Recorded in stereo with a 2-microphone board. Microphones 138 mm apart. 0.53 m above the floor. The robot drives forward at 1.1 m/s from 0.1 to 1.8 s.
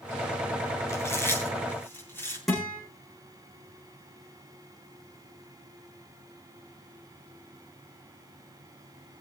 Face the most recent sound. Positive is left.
turn(degrees=0)  # may be behind; listen again after turning